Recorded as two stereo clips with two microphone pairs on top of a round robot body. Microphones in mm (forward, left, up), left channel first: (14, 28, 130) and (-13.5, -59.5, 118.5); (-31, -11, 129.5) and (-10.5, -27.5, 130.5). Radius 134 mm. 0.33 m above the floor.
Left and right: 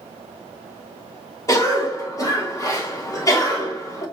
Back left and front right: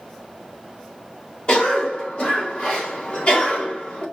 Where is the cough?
120° left, 2 m.